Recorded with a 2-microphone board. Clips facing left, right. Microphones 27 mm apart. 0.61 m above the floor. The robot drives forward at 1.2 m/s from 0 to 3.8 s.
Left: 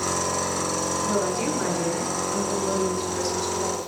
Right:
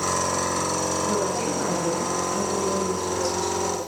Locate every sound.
1.0 s a woman speaking: 5° left (ahead or behind), 4.5 m